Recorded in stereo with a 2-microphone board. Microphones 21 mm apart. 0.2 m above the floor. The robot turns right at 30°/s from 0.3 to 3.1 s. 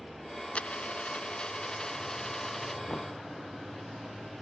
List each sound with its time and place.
0.6 s a dropped coin: 105° left; by 2.8 s 170° left
2.9 s knocking: 75° left (ahead or behind); by 3.1 s 70° left (ahead or behind)